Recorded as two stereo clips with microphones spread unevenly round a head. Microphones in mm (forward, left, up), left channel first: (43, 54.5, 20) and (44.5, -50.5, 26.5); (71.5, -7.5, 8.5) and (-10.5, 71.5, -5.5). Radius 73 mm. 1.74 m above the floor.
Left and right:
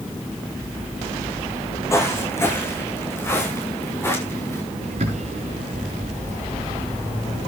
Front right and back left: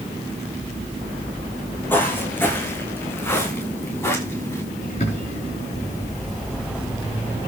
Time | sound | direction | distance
1.9 | footsteps | 25° left | 9 m
4.8 | a bird | 75° right | 4.5 m